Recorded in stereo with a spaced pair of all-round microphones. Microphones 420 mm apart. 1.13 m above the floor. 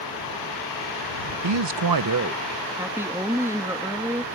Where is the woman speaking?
5° right (ahead or behind).